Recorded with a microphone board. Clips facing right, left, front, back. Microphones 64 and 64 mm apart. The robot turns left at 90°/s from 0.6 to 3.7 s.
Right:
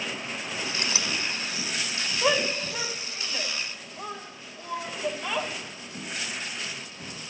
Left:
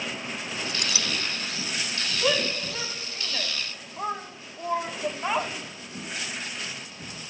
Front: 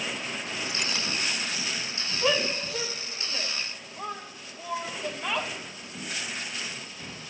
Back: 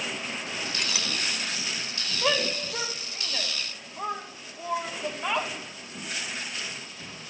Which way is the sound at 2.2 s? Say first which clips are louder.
Right 1 dB, even; 110° right.